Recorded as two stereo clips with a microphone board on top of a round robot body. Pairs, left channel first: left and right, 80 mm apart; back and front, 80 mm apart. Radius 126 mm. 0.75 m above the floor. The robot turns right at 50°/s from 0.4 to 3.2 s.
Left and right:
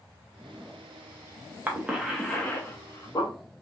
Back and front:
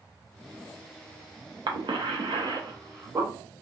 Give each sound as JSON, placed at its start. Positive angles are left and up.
{"t": 1.7, "sound": "a cough", "azimuth_deg": -20, "distance_m": 1.0}